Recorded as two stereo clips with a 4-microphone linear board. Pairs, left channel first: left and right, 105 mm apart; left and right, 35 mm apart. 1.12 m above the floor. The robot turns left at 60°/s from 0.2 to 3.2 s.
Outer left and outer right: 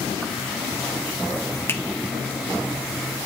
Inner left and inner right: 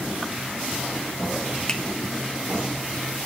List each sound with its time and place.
1.7 s a finger snap: 20° left (ahead or behind), 1.0 m; by 1.8 s 15° left (ahead or behind), 1.0 m